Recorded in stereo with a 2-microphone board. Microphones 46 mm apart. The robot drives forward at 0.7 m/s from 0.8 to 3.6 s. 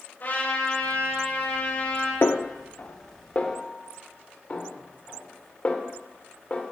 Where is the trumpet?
45° left (ahead or behind), 5 m; by 2.1 s 40° left (ahead or behind), 5.5 m.